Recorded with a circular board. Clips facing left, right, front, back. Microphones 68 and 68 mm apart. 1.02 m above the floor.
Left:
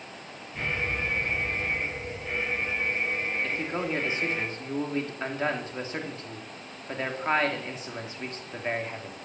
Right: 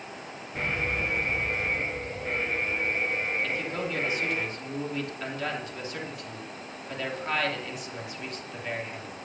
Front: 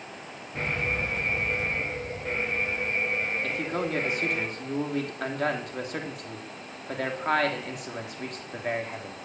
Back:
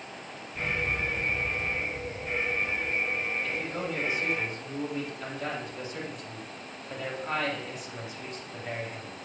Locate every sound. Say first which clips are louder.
0.6 s an alarm: right 1 dB, front 1 dB; 35° right, 8.5 m
3.4 s a man speaking: left 1 dB, front 3 dB; 30° left, 2.5 m